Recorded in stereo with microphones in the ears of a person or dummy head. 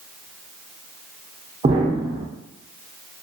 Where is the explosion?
25° right (ahead or behind), 0.6 m.